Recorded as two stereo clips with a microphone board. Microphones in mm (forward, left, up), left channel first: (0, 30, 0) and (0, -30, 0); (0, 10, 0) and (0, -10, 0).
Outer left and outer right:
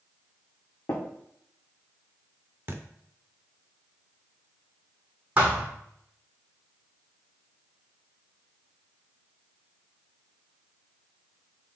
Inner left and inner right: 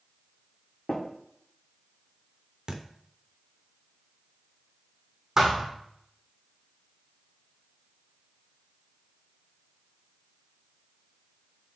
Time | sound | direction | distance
0.9 | tapping | 65° left (ahead or behind) | 4 m
2.7 | a thud | 30° right (ahead or behind) | 1.4 m
5.4 | a thud | 20° right (ahead or behind) | 2.5 m